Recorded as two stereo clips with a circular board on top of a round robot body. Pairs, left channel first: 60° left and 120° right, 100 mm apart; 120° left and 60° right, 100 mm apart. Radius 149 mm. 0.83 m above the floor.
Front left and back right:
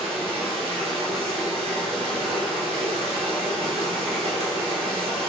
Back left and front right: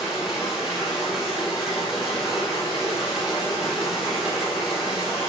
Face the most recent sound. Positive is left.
turn(degrees=-145)